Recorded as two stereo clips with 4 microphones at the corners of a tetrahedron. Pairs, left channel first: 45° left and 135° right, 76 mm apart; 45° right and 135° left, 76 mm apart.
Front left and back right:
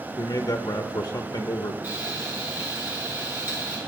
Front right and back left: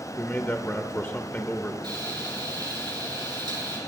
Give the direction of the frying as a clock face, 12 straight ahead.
7 o'clock.